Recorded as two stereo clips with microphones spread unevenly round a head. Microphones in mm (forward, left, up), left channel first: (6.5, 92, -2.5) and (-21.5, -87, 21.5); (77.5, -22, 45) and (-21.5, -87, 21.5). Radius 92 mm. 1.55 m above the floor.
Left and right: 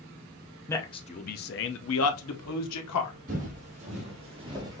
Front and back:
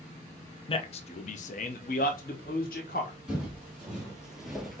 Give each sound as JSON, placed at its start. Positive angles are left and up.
{"t": 0.7, "sound": "a man speaking", "azimuth_deg": 0, "distance_m": 0.6}
{"t": 3.3, "sound": "footsteps", "azimuth_deg": -60, "distance_m": 3.5}